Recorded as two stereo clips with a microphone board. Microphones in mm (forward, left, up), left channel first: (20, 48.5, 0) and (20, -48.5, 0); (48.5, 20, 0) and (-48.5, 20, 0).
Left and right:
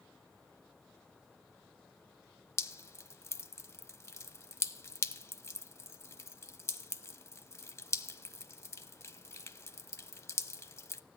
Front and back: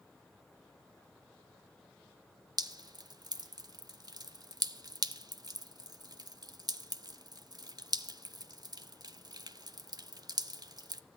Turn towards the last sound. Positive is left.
turn(degrees=145)